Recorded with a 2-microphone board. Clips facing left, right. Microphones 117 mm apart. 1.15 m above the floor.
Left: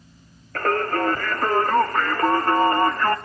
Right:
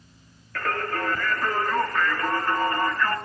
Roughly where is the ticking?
I don't hear ticking.